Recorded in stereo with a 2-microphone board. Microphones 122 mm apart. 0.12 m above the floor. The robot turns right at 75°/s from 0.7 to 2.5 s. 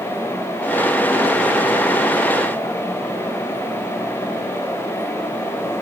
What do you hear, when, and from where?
Only background noise.